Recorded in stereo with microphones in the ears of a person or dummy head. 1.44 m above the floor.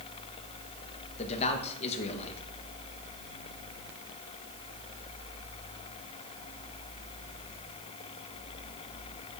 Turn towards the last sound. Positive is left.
turn(degrees=40)  # may be behind; listen again after turning